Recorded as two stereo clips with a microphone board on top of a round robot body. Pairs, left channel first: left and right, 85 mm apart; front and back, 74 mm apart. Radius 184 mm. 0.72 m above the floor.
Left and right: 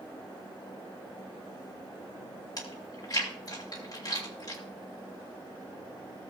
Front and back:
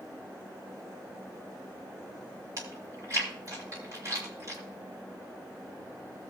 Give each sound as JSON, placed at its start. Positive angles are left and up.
{"t": 2.6, "sound": "chewing", "azimuth_deg": 135, "distance_m": 3.0}